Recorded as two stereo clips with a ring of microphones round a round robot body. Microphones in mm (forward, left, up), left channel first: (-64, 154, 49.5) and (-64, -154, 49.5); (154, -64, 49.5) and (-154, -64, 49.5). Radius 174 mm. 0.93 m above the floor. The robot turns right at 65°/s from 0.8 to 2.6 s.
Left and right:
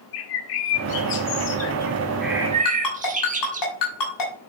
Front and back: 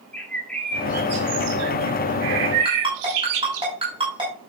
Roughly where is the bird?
Left.